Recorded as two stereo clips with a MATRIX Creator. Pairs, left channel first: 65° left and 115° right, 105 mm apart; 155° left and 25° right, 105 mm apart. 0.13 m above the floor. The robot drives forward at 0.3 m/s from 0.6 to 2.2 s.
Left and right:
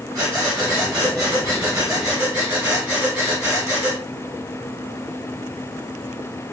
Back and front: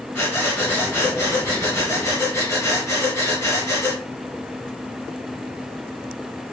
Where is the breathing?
145° right, 1.9 m; by 4.0 s 155° right, 2 m.